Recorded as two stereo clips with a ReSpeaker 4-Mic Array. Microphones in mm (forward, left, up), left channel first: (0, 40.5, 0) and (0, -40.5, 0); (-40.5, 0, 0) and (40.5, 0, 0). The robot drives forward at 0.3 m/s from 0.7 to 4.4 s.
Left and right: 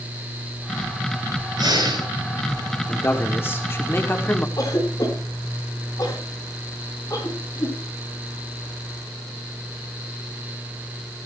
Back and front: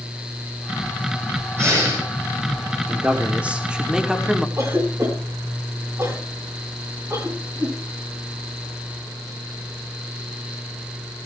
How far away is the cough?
About 7.5 m.